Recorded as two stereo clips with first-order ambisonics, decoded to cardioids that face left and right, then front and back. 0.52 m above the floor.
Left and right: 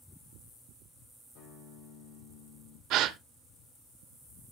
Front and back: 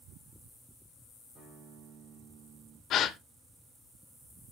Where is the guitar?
105° left, 3.5 m.